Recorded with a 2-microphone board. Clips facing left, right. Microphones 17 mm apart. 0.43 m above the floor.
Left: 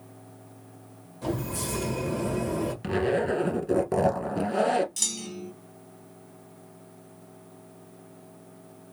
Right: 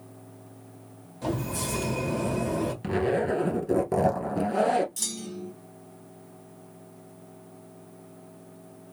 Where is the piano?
No piano in this recording.